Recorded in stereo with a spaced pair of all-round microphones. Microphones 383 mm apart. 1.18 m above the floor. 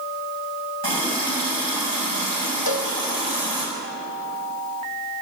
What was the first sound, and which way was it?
A running tap, 75° right (ahead or behind).